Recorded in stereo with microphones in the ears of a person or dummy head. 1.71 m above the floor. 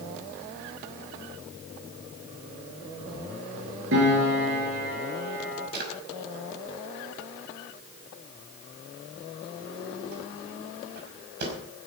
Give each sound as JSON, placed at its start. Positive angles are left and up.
{"t": 3.9, "sound": "a piano", "side_deg": -75, "distance_m": 6.5}
{"t": 5.7, "sound": "a drawer", "side_deg": -60, "distance_m": 5.0}